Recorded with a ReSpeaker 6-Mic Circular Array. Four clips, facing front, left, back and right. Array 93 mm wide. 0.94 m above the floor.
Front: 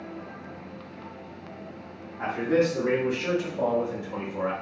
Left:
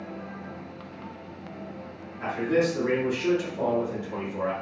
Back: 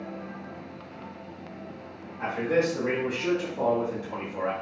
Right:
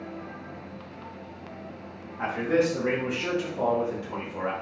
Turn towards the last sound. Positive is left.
turn(degrees=-120)